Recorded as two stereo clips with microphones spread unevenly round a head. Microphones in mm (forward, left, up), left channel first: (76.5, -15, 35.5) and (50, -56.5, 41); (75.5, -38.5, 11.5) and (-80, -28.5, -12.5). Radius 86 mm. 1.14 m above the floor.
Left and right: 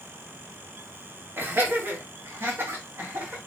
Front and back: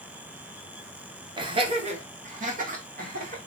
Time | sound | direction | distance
1.4 | laughter | 145° right | 0.8 m